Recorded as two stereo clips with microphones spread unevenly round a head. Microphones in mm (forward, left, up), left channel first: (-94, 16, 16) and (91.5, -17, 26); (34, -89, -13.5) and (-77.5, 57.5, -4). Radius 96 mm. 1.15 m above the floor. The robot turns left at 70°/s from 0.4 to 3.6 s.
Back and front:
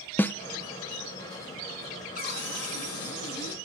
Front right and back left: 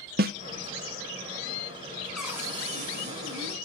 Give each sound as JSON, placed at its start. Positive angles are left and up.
{"t": 0.2, "sound": "a snare drum", "azimuth_deg": 95, "distance_m": 0.7}
{"t": 2.1, "sound": "a cupboard door", "azimuth_deg": -140, "distance_m": 6.0}